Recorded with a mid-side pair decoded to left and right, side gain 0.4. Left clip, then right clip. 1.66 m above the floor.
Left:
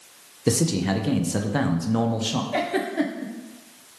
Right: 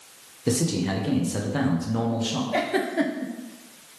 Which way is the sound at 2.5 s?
10° right.